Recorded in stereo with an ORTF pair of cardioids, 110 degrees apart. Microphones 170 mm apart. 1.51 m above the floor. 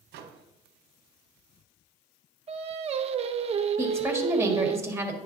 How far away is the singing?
About 0.7 m.